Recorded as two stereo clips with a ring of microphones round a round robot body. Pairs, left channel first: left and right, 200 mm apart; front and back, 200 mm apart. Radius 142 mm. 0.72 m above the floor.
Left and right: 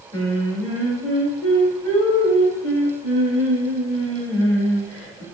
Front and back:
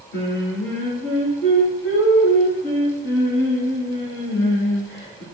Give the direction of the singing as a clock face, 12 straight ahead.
11 o'clock.